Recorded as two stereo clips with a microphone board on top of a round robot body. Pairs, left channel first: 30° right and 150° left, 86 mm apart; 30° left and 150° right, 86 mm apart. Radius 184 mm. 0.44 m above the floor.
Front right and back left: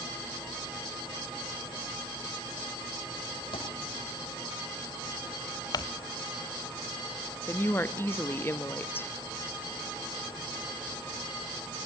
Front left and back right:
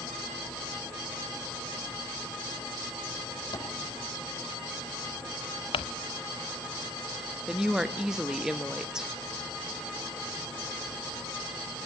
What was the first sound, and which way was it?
A thud, 10° right.